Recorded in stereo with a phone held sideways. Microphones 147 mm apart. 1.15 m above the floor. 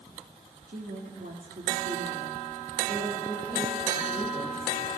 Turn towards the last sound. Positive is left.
turn(degrees=-65)  # may be behind; listen again after turning